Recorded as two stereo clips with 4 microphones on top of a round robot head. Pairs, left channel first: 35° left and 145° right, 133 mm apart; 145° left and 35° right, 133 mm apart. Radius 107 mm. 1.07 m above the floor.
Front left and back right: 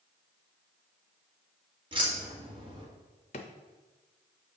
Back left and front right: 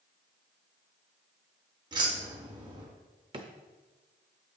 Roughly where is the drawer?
Ahead.